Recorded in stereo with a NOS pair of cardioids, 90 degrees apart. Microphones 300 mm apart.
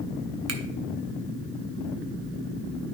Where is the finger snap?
55° right, 1.4 m.